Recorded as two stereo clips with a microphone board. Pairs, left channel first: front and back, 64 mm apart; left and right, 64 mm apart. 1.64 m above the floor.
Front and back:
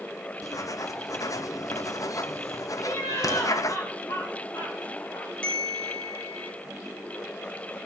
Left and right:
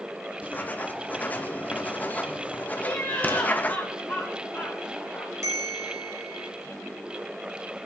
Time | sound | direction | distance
0.4 | writing | 25° left | 0.8 m
2.8 | laughter | 25° left | 2.5 m
5.4 | a bell | 70° right | 2.5 m